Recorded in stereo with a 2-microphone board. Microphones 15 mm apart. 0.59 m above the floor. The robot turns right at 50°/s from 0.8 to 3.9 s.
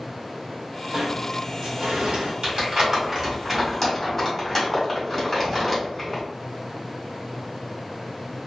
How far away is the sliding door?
About 0.6 m.